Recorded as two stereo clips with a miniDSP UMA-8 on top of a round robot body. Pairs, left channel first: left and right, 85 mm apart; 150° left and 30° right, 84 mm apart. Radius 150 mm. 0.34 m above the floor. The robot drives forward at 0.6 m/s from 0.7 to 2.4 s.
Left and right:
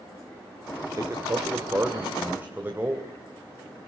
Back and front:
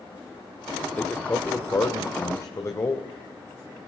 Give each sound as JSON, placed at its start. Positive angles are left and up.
{"t": 1.0, "sound": "a man speaking", "azimuth_deg": -140, "distance_m": 1.7}